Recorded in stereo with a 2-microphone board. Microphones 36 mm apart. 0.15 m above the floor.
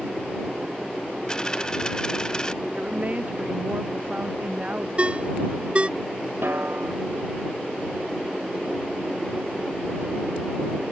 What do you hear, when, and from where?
1.3 s a dropped coin: 20° left (ahead or behind)
2.7 s a woman speaking: 40° right (ahead or behind)
5.0 s a ringtone: 30° right (ahead or behind)
6.4 s a snare drum: 75° right (ahead or behind)